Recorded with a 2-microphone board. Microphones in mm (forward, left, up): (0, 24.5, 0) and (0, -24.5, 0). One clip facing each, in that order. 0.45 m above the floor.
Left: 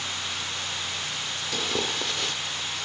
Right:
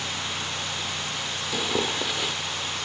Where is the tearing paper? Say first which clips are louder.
Right 2 dB; 10° right (ahead or behind).